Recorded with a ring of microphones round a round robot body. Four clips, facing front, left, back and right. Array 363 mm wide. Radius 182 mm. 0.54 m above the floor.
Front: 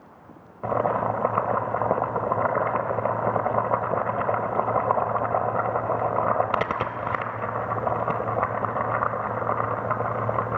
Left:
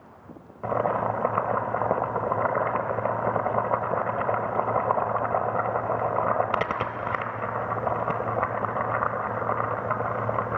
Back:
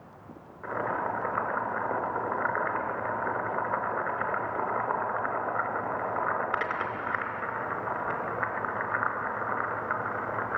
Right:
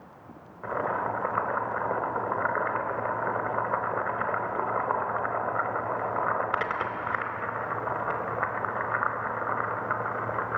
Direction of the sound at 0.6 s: 30° left.